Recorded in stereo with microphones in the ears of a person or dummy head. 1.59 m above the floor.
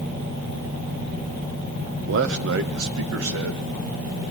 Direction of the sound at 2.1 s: 65° right (ahead or behind).